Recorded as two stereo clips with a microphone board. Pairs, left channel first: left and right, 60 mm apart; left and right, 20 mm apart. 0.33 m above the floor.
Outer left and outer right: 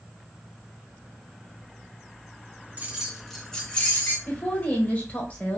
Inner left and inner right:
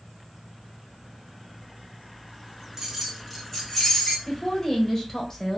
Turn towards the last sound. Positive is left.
turn(degrees=25)  # may be behind; listen again after turning